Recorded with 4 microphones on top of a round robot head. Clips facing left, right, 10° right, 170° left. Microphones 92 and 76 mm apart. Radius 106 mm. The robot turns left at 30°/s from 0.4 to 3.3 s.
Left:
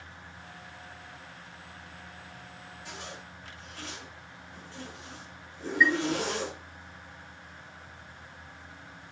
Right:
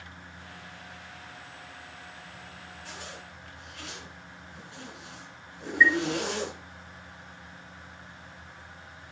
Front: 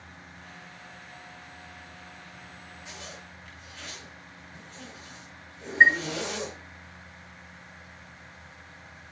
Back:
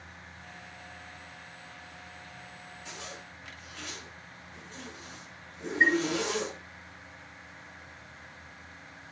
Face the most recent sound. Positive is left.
turn(degrees=15)